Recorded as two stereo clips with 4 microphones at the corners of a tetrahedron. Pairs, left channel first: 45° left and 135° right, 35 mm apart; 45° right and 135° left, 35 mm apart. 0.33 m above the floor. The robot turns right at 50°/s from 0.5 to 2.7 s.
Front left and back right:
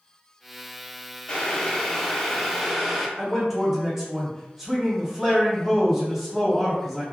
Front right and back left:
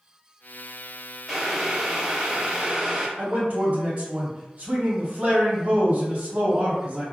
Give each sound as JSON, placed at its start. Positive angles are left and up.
{"t": 1.3, "sound": "boiling", "azimuth_deg": 75, "distance_m": 0.6}
{"t": 3.2, "sound": "a man speaking", "azimuth_deg": 160, "distance_m": 1.3}